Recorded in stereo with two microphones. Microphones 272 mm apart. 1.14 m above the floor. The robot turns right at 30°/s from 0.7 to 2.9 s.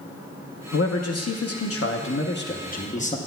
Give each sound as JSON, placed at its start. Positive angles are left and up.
{"t": 0.7, "sound": "a man speaking", "azimuth_deg": 85, "distance_m": 0.8}